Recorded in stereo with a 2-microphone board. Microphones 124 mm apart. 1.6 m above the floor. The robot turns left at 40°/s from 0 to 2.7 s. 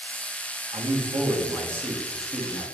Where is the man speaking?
120° right, 3 m; by 2.7 s 160° left, 3 m.